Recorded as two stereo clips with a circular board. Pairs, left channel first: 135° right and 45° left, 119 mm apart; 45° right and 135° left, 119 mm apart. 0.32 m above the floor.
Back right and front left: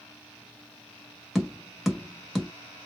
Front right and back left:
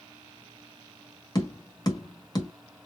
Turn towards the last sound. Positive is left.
turn(degrees=-40)